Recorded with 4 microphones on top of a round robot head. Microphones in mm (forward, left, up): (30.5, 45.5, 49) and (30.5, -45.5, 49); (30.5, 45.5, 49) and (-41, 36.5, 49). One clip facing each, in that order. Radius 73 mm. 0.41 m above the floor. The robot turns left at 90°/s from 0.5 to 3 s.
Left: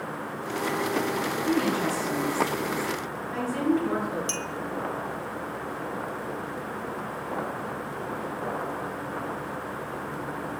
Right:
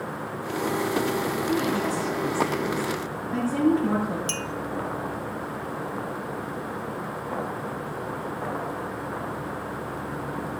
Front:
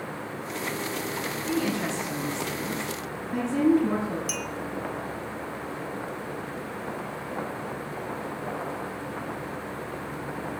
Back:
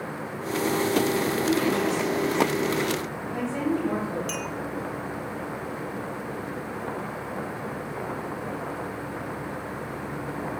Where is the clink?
75° right, 1.1 m.